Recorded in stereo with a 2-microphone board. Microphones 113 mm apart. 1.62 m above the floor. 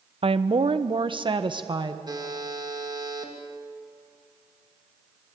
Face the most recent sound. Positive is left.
turn(degrees=-35)  # may be behind; listen again after turning